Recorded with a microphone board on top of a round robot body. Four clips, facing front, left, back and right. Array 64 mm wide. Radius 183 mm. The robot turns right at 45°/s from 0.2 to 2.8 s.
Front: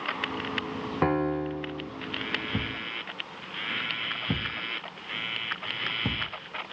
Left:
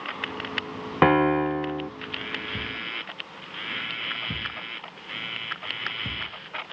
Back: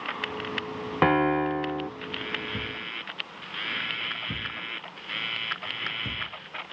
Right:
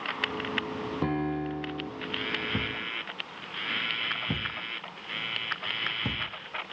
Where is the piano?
110° left, 0.9 m; by 1.9 s 150° left, 0.9 m.